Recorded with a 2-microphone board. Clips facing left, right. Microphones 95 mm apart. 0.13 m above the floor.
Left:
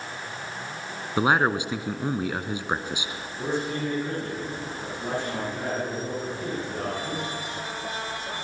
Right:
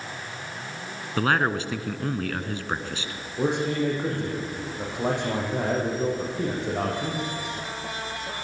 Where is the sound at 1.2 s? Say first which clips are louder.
Left 2 dB; 15° left (ahead or behind), 1.1 m.